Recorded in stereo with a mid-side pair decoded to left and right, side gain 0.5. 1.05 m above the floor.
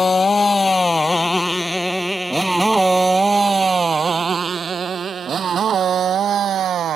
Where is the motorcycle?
25° left; by 7.0 s 60° right.